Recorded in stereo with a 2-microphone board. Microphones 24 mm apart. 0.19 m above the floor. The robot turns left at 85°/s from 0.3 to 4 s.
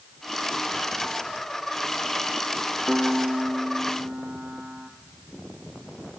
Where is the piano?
15° right, 1.1 m; by 4.9 s 110° right, 1.1 m.